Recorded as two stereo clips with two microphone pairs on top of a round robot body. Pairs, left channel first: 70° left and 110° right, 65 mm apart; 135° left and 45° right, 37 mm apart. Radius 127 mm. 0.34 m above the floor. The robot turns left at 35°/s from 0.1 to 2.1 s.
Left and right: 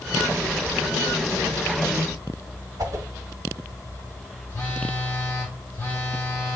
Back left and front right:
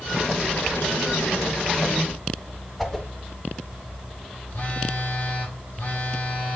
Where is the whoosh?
140° right, 1.5 m.